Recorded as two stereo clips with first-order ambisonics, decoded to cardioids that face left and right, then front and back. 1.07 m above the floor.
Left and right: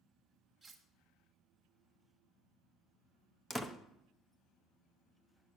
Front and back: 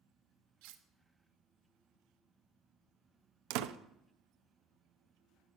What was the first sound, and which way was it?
Cutlery clinking, 175° right.